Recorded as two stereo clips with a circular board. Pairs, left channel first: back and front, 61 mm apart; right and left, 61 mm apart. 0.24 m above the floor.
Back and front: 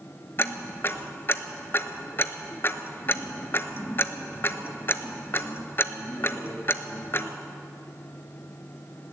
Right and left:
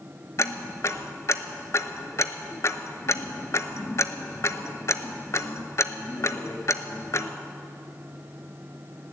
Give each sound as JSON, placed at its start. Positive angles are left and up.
{"t": 0.4, "sound": "ticking", "azimuth_deg": -130, "distance_m": 0.7}